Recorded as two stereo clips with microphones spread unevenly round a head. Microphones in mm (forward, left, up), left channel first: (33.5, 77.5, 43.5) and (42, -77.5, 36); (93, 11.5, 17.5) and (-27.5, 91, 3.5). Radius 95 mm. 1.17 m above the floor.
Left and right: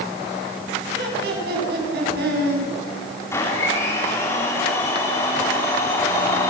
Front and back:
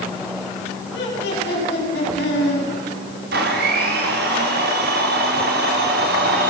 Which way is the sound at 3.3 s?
170° left.